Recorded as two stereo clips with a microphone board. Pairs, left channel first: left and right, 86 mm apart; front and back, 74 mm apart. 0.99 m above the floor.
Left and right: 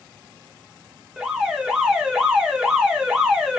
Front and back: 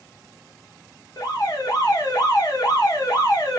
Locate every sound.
1.2 s an alarm: 10° right, 0.9 m